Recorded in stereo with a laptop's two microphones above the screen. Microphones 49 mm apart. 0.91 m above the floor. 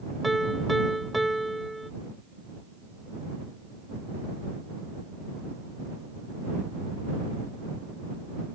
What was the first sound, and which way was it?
A piano, centre (ahead or behind).